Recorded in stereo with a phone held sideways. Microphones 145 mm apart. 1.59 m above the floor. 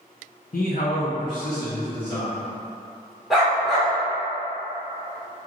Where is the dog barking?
Centre (ahead or behind), 1.4 m.